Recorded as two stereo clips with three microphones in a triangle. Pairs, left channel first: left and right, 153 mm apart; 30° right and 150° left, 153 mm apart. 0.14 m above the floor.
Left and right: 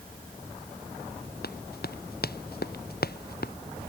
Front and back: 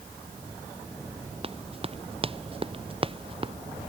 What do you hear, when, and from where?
1.4 s running footsteps: 100° left; by 3.5 s 95° left